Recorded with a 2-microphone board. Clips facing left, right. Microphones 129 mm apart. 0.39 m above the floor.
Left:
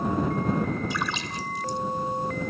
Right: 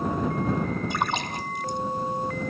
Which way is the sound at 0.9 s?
55° right (ahead or behind).